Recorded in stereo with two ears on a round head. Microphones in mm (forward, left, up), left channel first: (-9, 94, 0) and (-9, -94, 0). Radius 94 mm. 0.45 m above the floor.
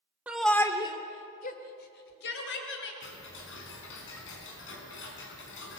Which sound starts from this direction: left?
Ticking, at 3.0 s.